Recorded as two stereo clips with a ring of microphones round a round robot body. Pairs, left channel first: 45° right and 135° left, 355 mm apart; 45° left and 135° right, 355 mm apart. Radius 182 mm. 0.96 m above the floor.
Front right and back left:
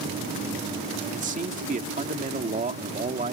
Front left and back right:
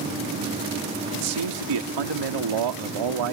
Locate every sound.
1.1 s a man speaking: 155° right